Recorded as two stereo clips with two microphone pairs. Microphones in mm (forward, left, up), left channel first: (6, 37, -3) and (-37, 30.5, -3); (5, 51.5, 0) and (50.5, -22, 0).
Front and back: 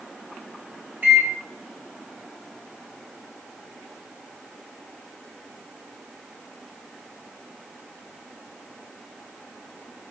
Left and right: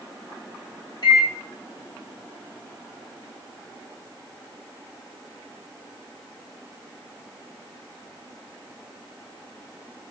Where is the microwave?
140° left, 0.9 m.